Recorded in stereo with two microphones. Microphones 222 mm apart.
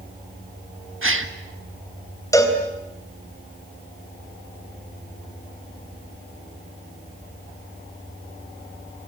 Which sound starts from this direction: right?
A gasp, at 1.0 s.